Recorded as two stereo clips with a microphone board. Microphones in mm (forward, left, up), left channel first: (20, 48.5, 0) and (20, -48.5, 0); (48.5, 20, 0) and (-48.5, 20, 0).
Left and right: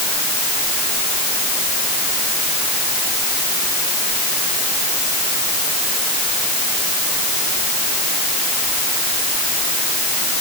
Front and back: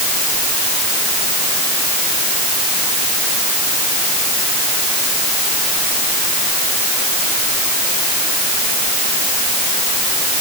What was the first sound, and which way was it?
Only background noise.